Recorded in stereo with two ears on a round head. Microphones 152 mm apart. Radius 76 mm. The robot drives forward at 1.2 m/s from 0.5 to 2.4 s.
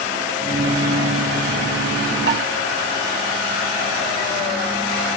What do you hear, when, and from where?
2.3 s dishes clattering: 70° right (ahead or behind), 4.5 m; by 2.4 s 65° right (ahead or behind), 5 m